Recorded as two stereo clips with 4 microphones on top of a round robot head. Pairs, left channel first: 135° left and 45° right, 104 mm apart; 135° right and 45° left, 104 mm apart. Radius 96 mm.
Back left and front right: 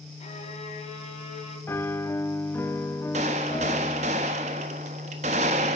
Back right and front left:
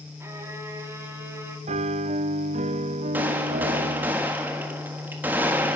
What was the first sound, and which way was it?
A violin, 115° left.